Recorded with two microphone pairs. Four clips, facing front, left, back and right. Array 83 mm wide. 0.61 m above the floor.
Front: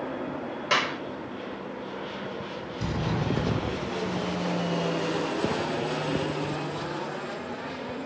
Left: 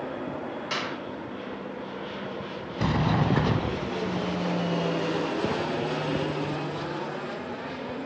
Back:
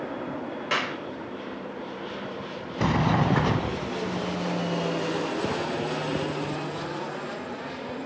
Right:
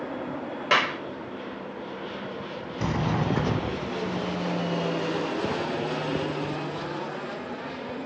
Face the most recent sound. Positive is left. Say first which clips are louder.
# left 2 dB, back 7 dB
turn(degrees=160)